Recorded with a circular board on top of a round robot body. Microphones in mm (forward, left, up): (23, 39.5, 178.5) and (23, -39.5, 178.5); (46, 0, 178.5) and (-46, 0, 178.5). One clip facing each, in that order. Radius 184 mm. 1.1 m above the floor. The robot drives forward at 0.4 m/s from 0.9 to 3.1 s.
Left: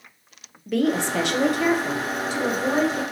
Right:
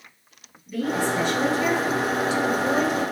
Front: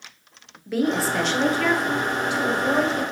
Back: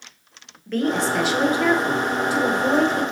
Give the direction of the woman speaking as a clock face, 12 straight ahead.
9 o'clock.